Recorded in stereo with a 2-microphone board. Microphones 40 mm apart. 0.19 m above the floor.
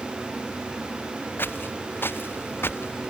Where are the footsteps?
60° left (ahead or behind); by 3.1 s 70° left (ahead or behind).